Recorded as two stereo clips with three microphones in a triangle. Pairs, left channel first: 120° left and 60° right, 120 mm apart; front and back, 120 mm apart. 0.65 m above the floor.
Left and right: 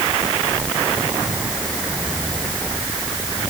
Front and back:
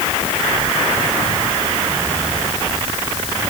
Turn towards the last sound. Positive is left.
No sound to turn to.